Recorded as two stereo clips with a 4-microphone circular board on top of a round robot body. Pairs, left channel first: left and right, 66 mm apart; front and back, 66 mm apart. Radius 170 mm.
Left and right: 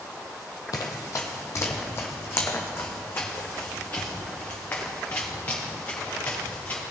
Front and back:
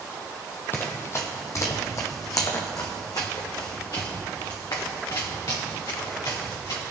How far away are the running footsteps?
About 0.8 m.